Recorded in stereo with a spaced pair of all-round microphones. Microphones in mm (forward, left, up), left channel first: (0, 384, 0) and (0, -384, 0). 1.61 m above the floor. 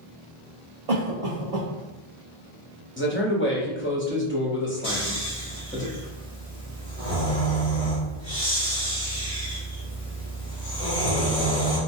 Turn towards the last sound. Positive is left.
turn(degrees=50)  # may be behind; listen again after turning